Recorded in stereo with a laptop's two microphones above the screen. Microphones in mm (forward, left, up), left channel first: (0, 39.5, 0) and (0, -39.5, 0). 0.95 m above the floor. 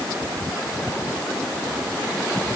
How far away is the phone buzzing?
No phone buzzing in this recording.